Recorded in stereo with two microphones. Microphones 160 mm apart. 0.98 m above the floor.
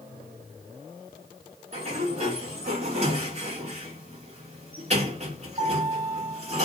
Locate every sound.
1.7 s a sliding door: 40° right (ahead or behind), 1.5 m